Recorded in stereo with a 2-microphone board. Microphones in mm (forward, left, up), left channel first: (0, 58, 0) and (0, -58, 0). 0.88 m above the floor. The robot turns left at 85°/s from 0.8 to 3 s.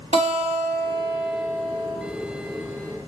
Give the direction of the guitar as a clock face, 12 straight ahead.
4 o'clock.